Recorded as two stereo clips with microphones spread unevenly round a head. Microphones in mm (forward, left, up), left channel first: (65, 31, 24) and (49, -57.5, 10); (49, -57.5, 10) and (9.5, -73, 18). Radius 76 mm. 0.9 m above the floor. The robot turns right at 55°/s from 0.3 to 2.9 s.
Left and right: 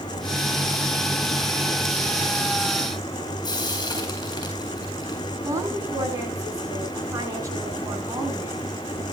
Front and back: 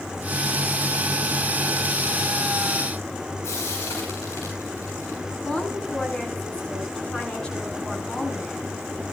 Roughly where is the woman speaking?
Ahead right.